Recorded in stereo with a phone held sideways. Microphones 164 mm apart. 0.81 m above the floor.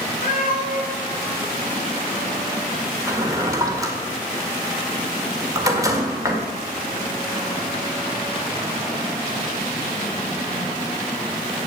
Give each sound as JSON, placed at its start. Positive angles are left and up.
{"t": 0.2, "sound": "a cat meowing", "side_deg": 55, "distance_m": 4.5}
{"t": 3.1, "sound": "a drawer", "side_deg": -20, "distance_m": 1.7}